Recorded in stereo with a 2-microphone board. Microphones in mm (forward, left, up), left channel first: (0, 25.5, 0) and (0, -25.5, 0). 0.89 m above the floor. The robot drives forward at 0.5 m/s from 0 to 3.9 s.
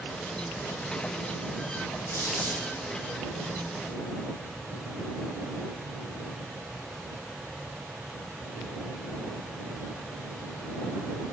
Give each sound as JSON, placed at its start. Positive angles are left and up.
{"t": 2.1, "sound": "a squeak", "side_deg": 55, "distance_m": 1.5}